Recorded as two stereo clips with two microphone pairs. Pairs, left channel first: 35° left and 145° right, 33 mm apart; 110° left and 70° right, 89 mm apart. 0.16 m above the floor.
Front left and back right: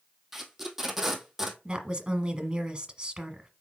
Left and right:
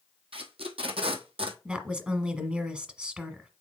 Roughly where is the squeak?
I don't hear a squeak.